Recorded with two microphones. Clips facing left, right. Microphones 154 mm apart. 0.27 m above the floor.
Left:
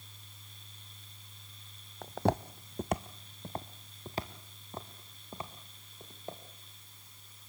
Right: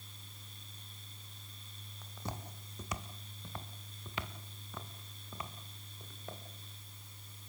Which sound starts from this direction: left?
Footsteps, at 2.0 s.